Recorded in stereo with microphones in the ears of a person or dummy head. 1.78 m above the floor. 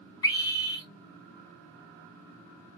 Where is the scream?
20° left (ahead or behind), 3 m.